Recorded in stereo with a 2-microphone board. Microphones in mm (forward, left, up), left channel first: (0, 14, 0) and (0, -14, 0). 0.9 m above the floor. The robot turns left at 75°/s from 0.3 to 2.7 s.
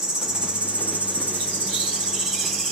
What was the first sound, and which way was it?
An insect, 20° right.